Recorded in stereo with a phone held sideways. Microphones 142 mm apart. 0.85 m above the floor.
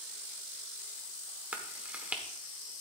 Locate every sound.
1.5 s chewing: 10° right (ahead or behind), 1.1 m